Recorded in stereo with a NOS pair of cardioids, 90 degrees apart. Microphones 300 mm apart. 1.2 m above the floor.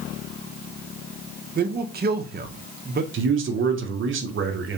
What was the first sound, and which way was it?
A man speaking, 30° right.